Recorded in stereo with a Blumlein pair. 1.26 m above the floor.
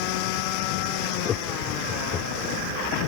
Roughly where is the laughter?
Ahead left.